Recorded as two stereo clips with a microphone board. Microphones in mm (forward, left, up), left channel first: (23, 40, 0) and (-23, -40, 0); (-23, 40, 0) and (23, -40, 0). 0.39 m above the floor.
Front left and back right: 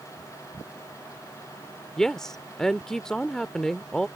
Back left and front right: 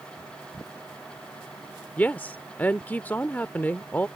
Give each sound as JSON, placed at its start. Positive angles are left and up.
{"t": 2.0, "sound": "a woman speaking", "azimuth_deg": 135}